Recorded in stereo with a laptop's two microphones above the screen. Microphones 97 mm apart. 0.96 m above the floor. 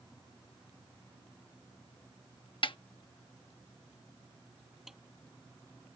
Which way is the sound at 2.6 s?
55° left (ahead or behind).